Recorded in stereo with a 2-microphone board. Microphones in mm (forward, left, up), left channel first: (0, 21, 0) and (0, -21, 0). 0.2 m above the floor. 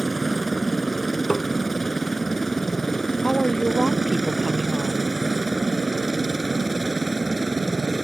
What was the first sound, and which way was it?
A helicopter, 5° left (ahead or behind).